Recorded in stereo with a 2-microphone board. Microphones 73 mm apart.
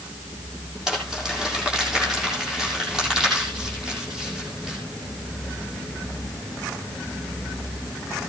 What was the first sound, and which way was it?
Crumpling, 5° right (ahead or behind).